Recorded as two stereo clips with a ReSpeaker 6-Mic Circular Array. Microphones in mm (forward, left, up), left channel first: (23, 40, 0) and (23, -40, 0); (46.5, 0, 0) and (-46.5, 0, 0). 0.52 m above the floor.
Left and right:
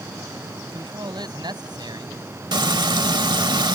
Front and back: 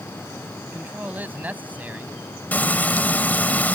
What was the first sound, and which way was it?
A man speaking, 110° right.